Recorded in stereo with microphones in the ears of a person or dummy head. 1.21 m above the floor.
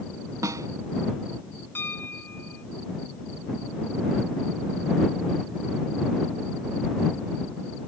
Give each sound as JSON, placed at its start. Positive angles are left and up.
{"t": 0.4, "sound": "a snare drum", "side_deg": -15}
{"t": 1.8, "sound": "a piano", "side_deg": 10}